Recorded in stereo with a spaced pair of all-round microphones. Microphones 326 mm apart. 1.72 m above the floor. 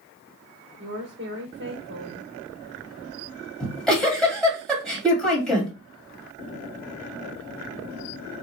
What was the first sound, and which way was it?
A woman speaking, 35° right (ahead or behind).